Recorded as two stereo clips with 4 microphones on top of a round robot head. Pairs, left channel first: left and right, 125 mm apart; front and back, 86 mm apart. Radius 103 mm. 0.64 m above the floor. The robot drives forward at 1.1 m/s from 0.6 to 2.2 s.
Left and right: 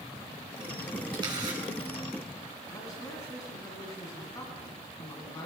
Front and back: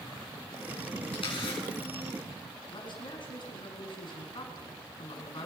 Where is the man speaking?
25° left, 6 m.